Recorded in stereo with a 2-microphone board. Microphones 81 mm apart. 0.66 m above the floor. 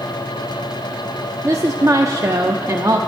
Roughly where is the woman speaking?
Right.